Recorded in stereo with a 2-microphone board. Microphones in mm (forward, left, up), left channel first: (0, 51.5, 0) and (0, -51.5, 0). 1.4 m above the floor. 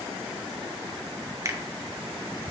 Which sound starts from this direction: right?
A finger snap, at 1.4 s.